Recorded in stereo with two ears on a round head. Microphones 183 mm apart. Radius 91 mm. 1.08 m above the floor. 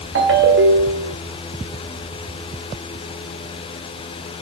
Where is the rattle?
I don't hear a rattle.